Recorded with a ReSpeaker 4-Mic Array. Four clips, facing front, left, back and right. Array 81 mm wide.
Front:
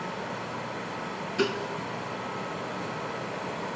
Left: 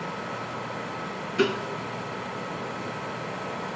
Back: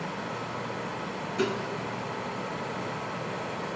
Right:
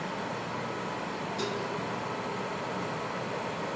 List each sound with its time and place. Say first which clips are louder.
1.4 s dishes clattering: left 11 dB, front 1 dB; 75° left, 1.8 m